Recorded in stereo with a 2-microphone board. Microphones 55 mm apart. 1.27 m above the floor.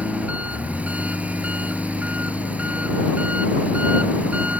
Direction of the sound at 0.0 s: 25° right (ahead or behind).